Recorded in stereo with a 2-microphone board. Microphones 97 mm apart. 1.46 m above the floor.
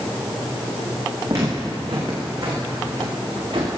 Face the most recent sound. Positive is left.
turn(degrees=-45)  # may be behind; listen again after turning